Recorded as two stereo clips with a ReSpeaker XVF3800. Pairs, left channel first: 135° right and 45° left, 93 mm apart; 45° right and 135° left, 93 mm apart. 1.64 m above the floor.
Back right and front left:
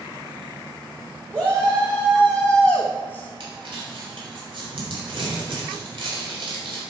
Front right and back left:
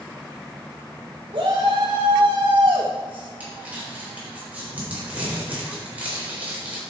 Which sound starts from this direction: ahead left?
Crumpling, at 3.4 s.